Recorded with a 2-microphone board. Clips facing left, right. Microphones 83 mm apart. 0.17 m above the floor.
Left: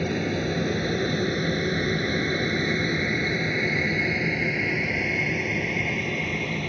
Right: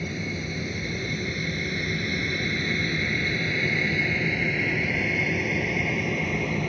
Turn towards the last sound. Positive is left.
turn(degrees=-5)  # may be behind; listen again after turning